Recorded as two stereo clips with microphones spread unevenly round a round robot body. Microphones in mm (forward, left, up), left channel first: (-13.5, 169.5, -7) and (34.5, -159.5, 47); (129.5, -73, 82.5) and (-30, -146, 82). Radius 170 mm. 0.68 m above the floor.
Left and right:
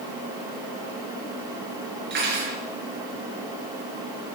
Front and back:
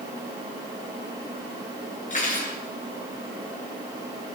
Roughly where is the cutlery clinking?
Ahead.